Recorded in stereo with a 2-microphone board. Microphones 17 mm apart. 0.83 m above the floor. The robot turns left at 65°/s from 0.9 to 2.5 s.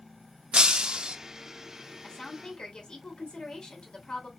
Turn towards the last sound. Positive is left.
turn(degrees=65)  # may be behind; listen again after turning